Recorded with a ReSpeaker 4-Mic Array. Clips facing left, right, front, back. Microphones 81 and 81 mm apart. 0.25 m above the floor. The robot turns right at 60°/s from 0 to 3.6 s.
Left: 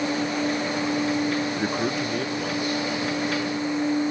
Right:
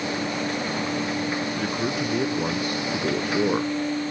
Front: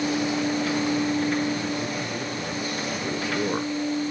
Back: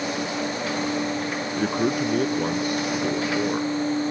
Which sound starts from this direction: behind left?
A man speaking, at 1.6 s.